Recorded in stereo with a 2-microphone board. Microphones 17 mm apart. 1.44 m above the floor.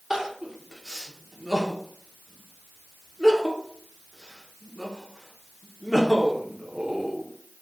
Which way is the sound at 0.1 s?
30° right (ahead or behind).